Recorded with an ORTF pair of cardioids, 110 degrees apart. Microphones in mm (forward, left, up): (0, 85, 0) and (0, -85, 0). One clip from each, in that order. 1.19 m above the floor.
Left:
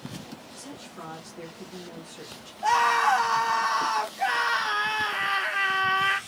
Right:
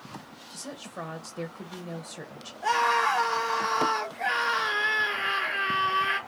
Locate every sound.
0.5 s a woman speaking: 35° right, 0.9 m
2.6 s a scream: 15° left, 1.3 m